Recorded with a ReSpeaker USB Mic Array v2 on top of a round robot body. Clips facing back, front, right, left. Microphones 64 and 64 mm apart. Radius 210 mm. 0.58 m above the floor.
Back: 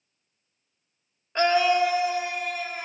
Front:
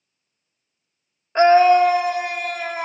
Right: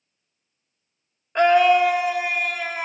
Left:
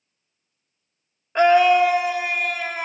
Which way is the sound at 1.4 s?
5° left.